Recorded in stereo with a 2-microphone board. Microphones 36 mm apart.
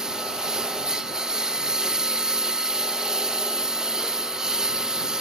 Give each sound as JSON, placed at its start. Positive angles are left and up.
{"t": 0.0, "sound": "a lawn mower", "side_deg": -20}